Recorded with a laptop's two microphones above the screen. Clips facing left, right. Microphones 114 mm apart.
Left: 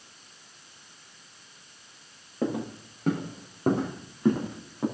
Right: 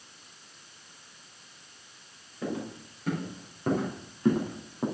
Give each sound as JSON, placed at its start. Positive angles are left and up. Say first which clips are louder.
{"t": 2.4, "sound": "footsteps", "louder": "left 5 dB", "side_deg": 65, "distance_m": 3.0}